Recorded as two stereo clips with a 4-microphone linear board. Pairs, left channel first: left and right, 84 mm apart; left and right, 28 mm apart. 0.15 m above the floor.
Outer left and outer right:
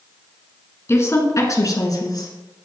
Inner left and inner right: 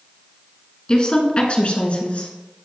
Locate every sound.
0.9 s a woman speaking: 30° left (ahead or behind), 1.7 m; by 2.3 s 50° left (ahead or behind), 2.0 m